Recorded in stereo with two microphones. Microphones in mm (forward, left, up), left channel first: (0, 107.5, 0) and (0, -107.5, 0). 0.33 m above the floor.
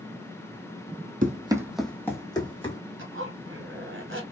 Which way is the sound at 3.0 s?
70° right (ahead or behind).